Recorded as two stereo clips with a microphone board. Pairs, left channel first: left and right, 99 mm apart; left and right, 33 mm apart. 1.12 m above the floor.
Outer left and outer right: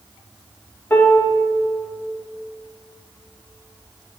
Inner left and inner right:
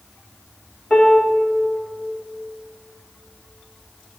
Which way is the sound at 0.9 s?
20° left (ahead or behind).